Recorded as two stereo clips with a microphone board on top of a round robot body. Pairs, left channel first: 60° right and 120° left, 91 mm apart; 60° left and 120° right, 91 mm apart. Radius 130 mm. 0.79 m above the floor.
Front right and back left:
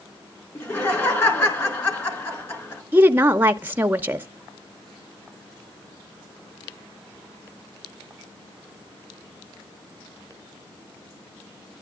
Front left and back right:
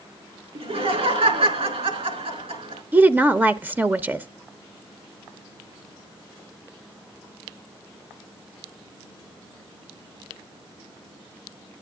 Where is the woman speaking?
Straight behind, 0.7 m.